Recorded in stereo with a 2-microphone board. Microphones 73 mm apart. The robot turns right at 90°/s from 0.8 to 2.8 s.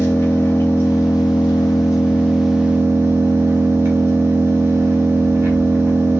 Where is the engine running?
35° left, 1.3 m; by 6.2 s 145° right, 1.3 m.